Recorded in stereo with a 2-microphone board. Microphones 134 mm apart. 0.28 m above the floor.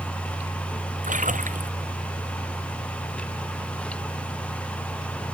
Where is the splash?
75° right (ahead or behind).